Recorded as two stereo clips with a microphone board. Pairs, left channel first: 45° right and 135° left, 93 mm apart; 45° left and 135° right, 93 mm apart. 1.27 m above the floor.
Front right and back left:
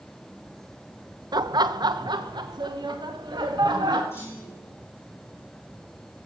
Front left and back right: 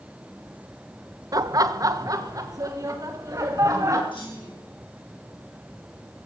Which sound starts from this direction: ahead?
A clunk, at 4.1 s.